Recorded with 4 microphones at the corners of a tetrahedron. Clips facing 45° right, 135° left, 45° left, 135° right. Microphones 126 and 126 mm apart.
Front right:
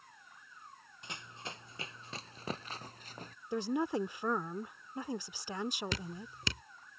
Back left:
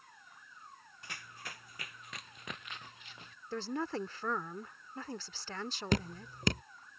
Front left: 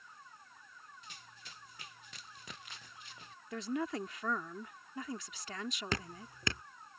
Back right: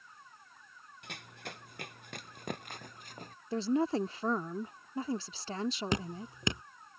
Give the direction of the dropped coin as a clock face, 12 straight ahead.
No dropped coin in this recording.